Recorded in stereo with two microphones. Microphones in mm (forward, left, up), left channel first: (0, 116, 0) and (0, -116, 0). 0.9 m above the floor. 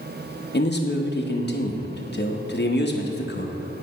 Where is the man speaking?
45° left (ahead or behind), 0.7 m.